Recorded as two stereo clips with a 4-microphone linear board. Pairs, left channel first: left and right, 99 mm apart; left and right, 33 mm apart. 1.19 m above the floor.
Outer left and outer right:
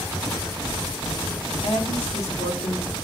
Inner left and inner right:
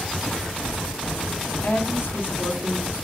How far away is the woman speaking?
About 2.5 m.